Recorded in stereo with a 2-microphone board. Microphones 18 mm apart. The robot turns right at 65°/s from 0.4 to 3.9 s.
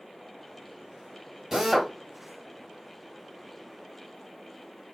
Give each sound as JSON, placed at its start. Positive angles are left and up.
{"t": 1.5, "sound": "a drill", "side_deg": -30, "distance_m": 1.1}